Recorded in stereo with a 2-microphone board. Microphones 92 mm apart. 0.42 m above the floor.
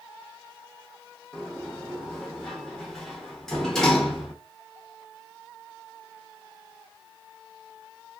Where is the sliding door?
5° left (ahead or behind), 0.8 m.